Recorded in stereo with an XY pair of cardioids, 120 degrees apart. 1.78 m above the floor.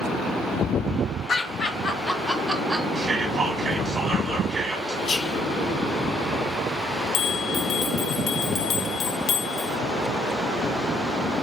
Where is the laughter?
45° left, 1.3 m; by 2.9 s 15° right, 0.9 m.